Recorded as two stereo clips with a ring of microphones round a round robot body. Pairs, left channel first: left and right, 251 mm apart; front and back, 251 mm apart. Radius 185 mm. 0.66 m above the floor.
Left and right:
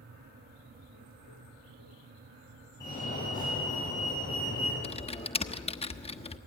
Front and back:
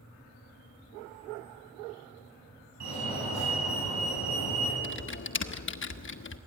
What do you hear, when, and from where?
2.8 s a fire alarm: 170° left, 8.5 m
4.8 s typing on a keyboard: 25° left, 1.3 m